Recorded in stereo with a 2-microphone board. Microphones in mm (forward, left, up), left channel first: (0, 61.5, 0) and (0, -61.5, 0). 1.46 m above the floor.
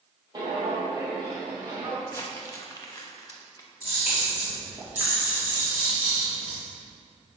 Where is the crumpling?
25° left (ahead or behind), 0.9 m.